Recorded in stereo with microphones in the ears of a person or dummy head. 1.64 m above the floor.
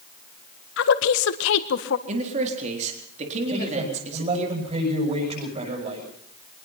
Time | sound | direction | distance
0.8 | a woman speaking | 70° left (ahead or behind) | 1.6 m
2.1 | a man speaking | 35° right (ahead or behind) | 4 m
3.5 | a man speaking | 35° right (ahead or behind) | 8 m